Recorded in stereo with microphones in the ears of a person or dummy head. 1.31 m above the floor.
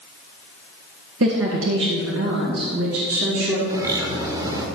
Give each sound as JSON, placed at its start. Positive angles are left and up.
{"t": 1.2, "sound": "a woman speaking", "side_deg": -70, "distance_m": 1.4}
{"t": 3.7, "sound": "a bird", "side_deg": -15, "distance_m": 1.8}